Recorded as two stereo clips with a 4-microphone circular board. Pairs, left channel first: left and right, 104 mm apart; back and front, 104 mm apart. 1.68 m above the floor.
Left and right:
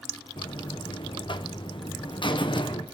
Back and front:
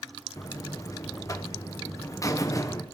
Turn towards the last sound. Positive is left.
turn(degrees=125)